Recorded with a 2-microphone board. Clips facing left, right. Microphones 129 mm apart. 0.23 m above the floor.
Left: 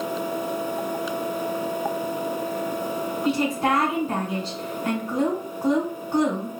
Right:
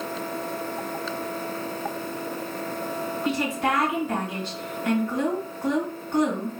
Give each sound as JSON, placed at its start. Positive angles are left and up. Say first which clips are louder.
{"t": 3.2, "sound": "a woman speaking", "louder": "left 3 dB", "side_deg": 35, "distance_m": 2.0}